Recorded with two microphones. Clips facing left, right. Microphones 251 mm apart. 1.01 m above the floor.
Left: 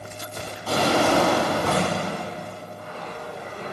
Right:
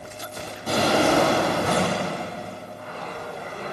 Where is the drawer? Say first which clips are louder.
Right 1 dB; 20° right (ahead or behind), 1.8 m.